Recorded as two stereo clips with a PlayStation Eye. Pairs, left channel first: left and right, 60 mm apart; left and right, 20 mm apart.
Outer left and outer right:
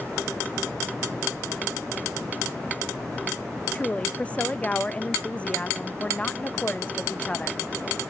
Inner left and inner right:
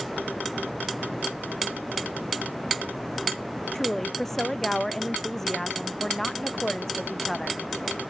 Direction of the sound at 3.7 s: 20° left (ahead or behind).